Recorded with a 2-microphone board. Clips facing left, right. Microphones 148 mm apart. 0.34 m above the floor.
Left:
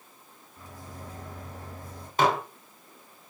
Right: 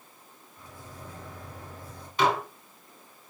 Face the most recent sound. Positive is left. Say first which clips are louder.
# left 1 dB
turn(degrees=45)  # may be behind; listen again after turning